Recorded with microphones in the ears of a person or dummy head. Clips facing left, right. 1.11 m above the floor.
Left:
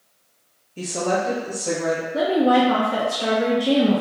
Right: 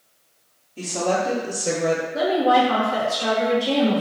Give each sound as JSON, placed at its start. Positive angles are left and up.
{"t": 0.8, "sound": "a woman speaking", "side_deg": 15, "distance_m": 1.0}
{"t": 2.1, "sound": "a woman speaking", "side_deg": 35, "distance_m": 0.8}